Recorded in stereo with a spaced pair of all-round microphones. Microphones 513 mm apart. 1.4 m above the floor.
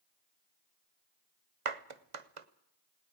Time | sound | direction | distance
1.6 | a clap | 75° right (ahead or behind) | 0.9 m